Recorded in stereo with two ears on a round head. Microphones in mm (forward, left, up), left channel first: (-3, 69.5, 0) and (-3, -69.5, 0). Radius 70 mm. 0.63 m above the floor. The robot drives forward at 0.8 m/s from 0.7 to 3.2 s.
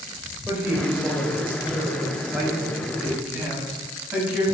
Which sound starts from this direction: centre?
A woman speaking, at 0.5 s.